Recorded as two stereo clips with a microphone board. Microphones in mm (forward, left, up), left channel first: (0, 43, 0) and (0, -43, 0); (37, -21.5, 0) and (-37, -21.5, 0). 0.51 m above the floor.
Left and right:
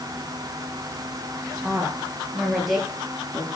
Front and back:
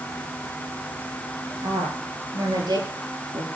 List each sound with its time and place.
1.6 s a woman speaking: 175° right, 9.5 m; by 3.5 s straight behind, 8.5 m